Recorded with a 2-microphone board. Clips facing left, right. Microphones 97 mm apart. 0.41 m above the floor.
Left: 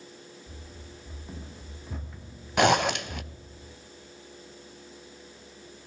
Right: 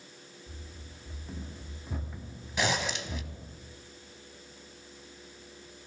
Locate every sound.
0.5 s running footsteps: 20° left (ahead or behind), 2.5 m; by 3.6 s 45° right (ahead or behind), 1.8 m
2.6 s a zipper: 65° left (ahead or behind), 0.5 m